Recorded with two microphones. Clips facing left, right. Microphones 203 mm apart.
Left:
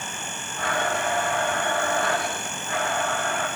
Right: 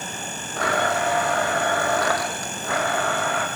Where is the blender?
85° right, 5 m.